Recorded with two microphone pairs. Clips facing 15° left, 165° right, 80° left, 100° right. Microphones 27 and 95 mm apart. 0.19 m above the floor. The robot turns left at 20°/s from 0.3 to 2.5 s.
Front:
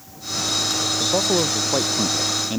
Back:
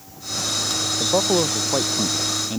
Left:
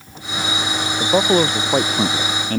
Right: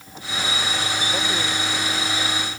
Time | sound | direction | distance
1.0 | a man speaking | 125° left | ?